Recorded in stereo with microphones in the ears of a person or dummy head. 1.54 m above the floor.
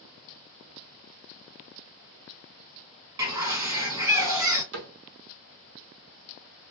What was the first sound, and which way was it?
A bird, 20° right (ahead or behind).